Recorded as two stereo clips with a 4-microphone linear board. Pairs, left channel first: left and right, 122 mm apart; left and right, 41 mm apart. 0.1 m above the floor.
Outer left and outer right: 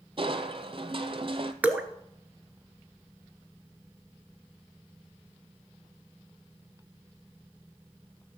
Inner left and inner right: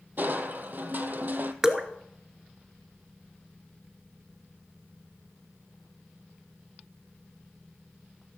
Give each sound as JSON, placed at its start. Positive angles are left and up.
{"t": 0.2, "sound": "crushing", "side_deg": -45, "distance_m": 0.7}
{"t": 1.6, "sound": "dripping", "side_deg": -10, "distance_m": 0.8}